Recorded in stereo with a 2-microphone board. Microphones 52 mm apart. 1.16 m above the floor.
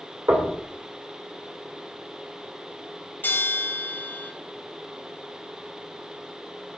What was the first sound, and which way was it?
Knocking, 70° right (ahead or behind).